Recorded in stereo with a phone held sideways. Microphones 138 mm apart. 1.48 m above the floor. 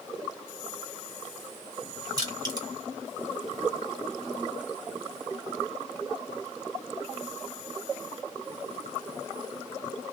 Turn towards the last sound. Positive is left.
turn(degrees=-30)  # may be behind; listen again after turning